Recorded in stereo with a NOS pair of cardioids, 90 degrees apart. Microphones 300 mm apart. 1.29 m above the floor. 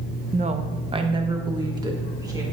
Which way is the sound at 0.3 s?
25° right.